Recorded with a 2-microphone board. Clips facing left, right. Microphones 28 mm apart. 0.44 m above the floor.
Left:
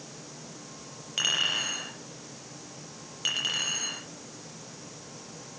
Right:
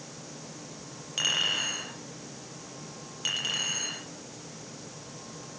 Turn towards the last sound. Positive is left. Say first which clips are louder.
# even
turn(degrees=10)  # may be behind; listen again after turning